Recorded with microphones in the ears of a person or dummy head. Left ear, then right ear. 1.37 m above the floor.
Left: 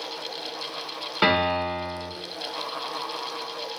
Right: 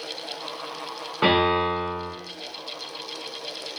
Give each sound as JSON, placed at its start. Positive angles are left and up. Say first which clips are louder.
{"t": 1.2, "sound": "a piano", "louder": "right 2 dB", "side_deg": 80, "distance_m": 1.3}